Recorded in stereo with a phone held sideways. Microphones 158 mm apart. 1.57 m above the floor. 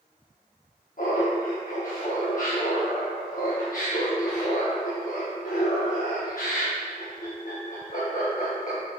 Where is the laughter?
60° left (ahead or behind), 1.2 m.